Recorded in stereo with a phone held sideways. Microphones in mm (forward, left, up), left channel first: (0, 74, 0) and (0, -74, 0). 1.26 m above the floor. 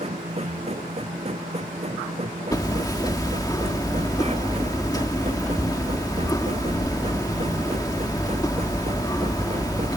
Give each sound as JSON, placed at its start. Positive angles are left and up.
{"t": 0.0, "sound": "a machine running", "side_deg": -45}
{"t": 2.5, "sound": "hammering", "side_deg": 25}